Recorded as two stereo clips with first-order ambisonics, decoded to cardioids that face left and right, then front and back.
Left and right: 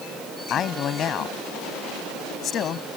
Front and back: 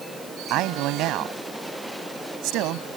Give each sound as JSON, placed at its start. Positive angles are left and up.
{"t": 0.5, "sound": "a man speaking", "azimuth_deg": 150}